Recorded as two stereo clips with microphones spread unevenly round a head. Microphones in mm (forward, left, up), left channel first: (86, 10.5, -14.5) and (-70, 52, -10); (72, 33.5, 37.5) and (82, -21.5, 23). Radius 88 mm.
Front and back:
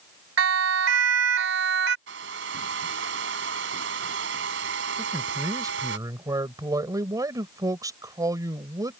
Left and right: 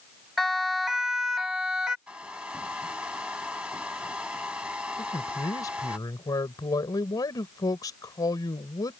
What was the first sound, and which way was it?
A siren, 175° right.